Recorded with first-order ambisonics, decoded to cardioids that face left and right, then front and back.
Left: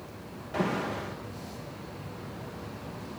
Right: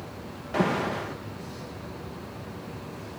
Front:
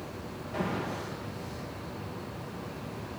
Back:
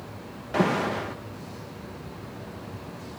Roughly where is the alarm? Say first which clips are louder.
Right 4 dB, back 9 dB; behind right.